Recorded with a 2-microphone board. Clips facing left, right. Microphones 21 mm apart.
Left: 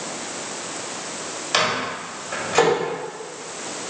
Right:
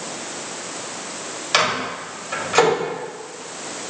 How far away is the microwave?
About 1.6 m.